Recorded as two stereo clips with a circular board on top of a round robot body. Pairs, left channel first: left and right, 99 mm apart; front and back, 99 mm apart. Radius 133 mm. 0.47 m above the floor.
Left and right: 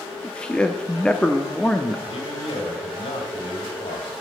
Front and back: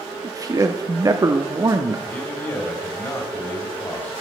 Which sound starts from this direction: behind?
A man speaking, at 0.2 s.